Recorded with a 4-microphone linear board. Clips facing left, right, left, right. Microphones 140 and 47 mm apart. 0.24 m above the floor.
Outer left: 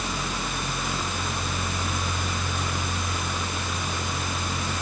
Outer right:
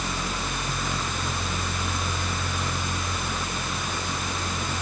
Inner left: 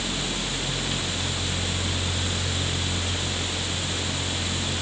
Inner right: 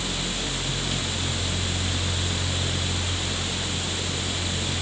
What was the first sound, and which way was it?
Only background noise.